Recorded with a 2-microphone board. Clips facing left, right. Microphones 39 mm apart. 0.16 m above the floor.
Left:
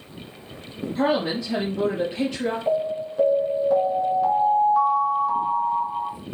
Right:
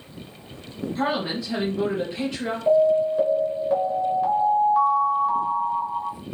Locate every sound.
0.9 s a woman speaking: 5° left (ahead or behind), 3.5 m
2.7 s an alarm: centre (ahead or behind), 2 m